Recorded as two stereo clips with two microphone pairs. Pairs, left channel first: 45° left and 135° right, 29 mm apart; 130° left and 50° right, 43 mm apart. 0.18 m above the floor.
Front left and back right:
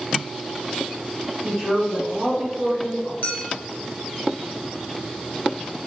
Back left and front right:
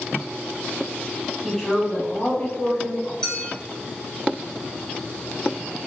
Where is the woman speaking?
155° right, 1.1 m; by 3.1 s 145° left, 1.8 m.